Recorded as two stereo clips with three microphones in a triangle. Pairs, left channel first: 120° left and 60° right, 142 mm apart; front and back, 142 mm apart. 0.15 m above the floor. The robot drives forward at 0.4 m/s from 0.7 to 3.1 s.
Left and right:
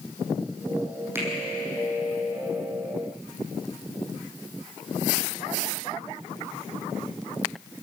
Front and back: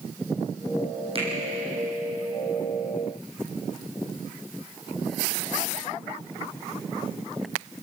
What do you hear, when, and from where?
1.1 s a finger snap: 135° right, 6 m